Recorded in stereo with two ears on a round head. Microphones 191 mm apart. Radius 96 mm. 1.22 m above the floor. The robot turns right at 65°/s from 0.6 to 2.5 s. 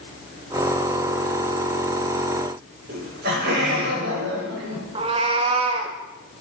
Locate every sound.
2.9 s laughter: 45° right (ahead or behind), 5.5 m
5.0 s a cat meowing: 25° right (ahead or behind), 0.9 m